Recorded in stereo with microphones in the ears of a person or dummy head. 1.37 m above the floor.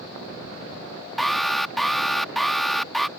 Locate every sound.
1.2 s an alarm: centre (ahead or behind)